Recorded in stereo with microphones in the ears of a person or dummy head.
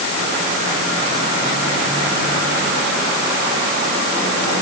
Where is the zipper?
No zipper in this recording.